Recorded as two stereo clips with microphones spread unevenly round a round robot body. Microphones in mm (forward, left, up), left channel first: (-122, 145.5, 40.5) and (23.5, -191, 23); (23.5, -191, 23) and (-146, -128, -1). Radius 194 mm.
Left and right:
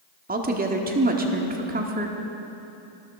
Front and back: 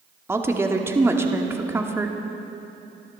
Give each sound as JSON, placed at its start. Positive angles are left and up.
{"t": 0.3, "sound": "a woman speaking", "azimuth_deg": -130, "distance_m": 1.6}